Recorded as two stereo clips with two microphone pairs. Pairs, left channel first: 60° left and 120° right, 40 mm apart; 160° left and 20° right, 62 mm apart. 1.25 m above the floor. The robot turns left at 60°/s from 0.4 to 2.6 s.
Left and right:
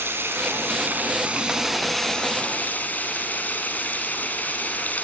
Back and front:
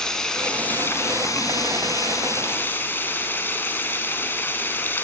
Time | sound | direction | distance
0.0 | running water | 125° right | 5 m